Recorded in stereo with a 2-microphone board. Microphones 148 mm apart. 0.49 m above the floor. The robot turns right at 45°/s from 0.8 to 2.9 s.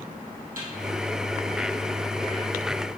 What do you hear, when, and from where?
0.6 s a snare drum: 70° right (ahead or behind), 2.5 m